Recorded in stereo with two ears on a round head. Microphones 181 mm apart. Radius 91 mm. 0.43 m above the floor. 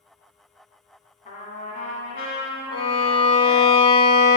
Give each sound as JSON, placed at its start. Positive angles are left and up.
{"t": 1.2, "sound": "a trumpet", "side_deg": 40, "distance_m": 1.0}
{"t": 2.7, "sound": "a violin", "side_deg": 25, "distance_m": 0.6}